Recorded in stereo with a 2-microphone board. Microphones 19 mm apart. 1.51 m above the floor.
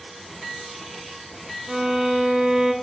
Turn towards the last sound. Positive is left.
turn(degrees=-35)  # may be behind; listen again after turning